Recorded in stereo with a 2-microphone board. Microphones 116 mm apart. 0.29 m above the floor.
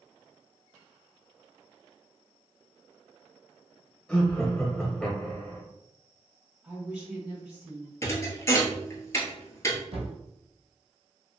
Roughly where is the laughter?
Centre.